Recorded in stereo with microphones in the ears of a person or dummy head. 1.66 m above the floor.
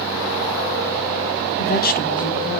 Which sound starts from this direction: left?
A woman speaking, at 1.6 s.